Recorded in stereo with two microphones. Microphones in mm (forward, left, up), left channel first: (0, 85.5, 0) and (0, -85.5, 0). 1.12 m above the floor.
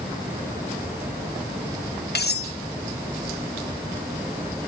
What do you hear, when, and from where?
2.1 s cutlery clinking: 70° left (ahead or behind), 0.8 m